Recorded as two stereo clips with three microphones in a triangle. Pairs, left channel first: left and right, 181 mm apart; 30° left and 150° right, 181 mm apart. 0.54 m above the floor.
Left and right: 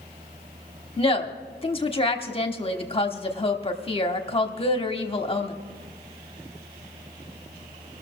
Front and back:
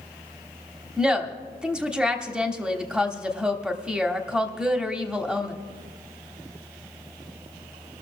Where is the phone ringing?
I don't hear a phone ringing.